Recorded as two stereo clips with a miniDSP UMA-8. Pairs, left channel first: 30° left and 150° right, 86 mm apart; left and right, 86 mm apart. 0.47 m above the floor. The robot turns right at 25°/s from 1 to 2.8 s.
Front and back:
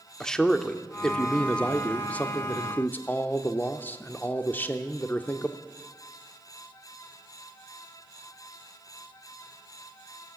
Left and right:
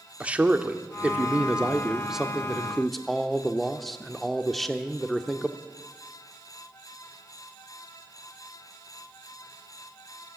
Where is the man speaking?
40° right, 0.9 m; by 5.6 s 5° left, 0.9 m.